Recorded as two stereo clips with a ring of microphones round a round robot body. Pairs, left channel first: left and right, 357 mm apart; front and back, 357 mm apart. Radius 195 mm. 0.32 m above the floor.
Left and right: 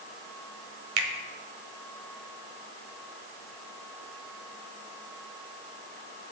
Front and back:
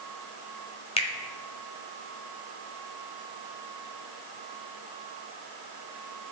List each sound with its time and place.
1.0 s a finger snap: 70° right, 1.2 m